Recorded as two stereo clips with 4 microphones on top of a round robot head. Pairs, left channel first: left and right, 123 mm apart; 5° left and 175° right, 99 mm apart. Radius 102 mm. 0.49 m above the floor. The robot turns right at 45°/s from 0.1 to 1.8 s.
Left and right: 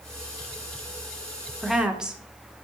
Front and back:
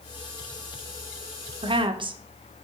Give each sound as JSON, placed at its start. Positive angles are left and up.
{"t": 1.6, "sound": "a woman speaking", "azimuth_deg": 180, "distance_m": 1.3}